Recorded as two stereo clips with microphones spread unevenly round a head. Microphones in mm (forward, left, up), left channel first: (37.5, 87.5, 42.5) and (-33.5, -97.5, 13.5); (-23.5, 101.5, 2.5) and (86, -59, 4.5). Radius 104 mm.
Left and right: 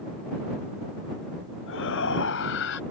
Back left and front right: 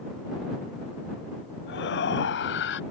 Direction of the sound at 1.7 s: 95° left.